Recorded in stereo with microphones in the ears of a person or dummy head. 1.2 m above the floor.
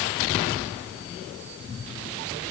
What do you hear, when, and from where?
Only background noise.